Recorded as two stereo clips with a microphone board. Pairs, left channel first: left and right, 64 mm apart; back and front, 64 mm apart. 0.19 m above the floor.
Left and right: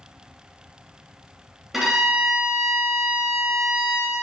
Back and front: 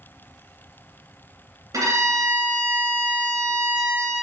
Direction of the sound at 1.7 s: 5° right.